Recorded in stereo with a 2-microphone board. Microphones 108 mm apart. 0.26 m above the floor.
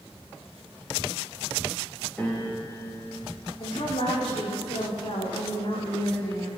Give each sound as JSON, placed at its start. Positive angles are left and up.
{"t": 2.2, "sound": "a piano", "side_deg": 15, "distance_m": 8.0}
{"t": 3.6, "sound": "a woman speaking", "side_deg": 55, "distance_m": 9.0}